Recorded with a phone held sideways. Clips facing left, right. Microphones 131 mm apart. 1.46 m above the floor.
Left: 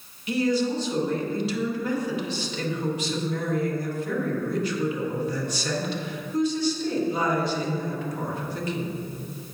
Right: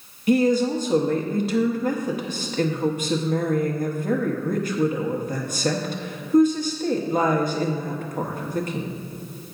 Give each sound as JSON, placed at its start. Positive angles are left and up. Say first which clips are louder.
{"t": 0.3, "sound": "a woman speaking", "louder": "right 5 dB", "side_deg": -50, "distance_m": 1.2}